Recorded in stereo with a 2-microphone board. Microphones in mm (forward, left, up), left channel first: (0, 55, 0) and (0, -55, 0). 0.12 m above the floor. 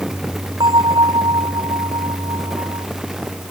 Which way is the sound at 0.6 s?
45° right (ahead or behind).